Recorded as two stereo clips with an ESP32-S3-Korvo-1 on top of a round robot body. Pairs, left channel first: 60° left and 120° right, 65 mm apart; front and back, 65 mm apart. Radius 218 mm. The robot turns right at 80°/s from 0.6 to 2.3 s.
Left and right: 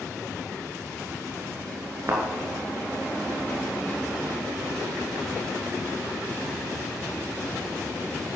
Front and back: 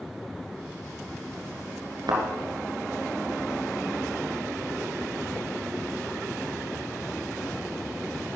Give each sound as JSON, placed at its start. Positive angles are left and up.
{"t": 2.1, "sound": "a thud", "azimuth_deg": -170, "distance_m": 3.0}